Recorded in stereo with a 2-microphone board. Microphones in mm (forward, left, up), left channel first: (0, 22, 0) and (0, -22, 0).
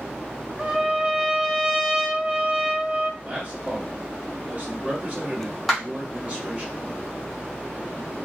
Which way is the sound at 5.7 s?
Centre (ahead or behind).